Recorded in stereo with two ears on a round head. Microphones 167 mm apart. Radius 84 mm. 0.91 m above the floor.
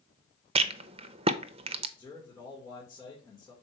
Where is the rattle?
30° right (ahead or behind), 0.6 m.